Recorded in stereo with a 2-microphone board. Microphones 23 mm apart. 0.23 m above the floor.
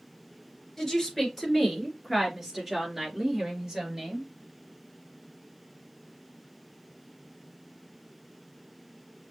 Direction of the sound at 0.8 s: 10° left (ahead or behind).